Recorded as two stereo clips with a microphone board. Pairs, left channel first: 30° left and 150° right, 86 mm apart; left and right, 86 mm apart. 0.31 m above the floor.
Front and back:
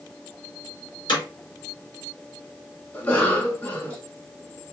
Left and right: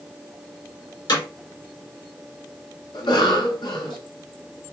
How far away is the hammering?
About 3 m.